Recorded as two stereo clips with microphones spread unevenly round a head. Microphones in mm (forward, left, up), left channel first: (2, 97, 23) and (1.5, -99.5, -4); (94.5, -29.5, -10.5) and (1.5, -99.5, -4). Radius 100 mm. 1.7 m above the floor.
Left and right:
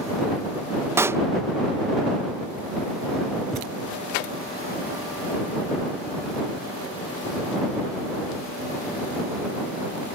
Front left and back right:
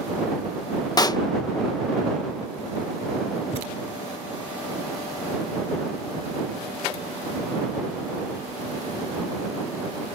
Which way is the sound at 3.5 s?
5° left.